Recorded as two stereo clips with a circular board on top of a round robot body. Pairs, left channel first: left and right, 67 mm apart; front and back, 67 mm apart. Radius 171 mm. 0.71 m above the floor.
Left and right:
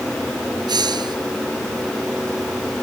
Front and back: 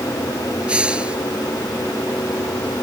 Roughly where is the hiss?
Right.